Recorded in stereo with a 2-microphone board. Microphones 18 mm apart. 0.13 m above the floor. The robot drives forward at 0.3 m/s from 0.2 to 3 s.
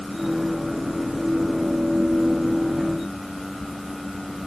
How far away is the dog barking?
No dog barking in this recording.